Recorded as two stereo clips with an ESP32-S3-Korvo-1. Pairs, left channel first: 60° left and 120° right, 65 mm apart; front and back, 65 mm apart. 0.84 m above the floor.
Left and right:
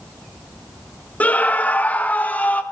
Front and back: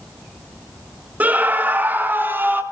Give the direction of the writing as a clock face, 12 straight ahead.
No writing in this recording.